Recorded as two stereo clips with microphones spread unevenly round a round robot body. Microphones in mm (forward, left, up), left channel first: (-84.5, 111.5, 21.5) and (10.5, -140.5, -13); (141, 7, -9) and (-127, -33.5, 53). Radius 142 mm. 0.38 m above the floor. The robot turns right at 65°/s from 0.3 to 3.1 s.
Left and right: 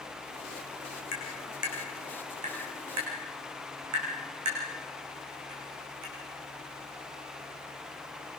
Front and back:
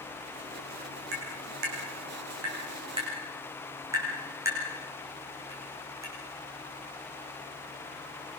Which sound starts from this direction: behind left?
Tapping, at 1.1 s.